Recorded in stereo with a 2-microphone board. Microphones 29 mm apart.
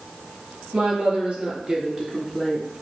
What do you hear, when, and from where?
0.7 s a woman speaking: 60° right (ahead or behind), 2.5 m; by 2.7 s 20° left (ahead or behind), 1.2 m